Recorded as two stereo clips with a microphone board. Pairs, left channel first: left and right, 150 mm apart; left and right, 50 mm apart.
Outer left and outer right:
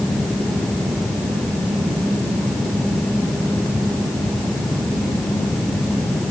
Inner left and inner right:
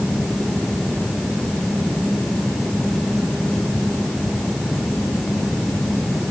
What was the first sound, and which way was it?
Only background noise.